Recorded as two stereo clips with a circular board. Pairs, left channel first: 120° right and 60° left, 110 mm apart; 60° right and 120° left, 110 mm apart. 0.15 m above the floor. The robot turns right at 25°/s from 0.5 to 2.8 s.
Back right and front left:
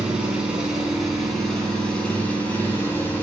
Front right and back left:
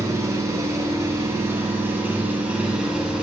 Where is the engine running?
135° left, 0.9 m; by 3.2 s 170° right, 0.9 m.